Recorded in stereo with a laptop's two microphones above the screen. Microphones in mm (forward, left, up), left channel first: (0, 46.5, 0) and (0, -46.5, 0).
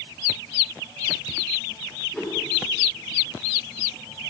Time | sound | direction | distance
2.1 | a whoosh | 10° left (ahead or behind) | 3 m